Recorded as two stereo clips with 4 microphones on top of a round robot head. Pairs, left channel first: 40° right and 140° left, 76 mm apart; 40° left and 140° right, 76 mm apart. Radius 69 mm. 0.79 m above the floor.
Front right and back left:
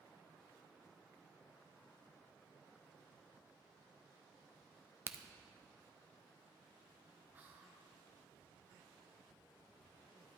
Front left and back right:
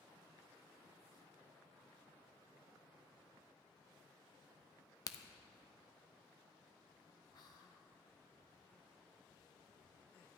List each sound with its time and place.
5.1 s a crack: 75° left, 0.6 m
7.3 s whispering: 75° left, 1.7 m